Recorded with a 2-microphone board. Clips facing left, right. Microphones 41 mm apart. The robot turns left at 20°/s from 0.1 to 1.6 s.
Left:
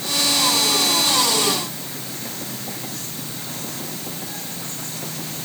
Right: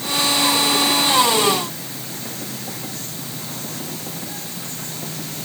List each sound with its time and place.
Only background noise.